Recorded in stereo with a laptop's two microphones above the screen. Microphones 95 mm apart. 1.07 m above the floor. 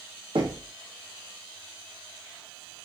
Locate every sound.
0.3 s knocking: 65° right (ahead or behind), 0.8 m